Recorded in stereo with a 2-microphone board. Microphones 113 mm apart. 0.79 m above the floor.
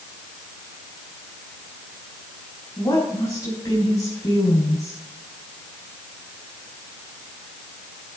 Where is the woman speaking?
30° left (ahead or behind), 4.5 m.